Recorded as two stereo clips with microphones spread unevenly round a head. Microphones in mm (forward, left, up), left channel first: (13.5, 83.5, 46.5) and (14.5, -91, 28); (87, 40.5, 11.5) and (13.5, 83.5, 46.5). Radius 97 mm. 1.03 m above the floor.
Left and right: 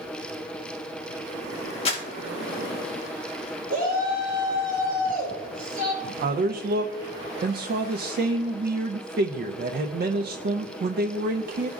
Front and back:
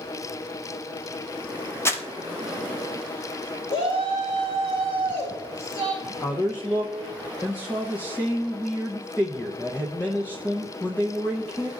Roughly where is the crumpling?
Ahead left.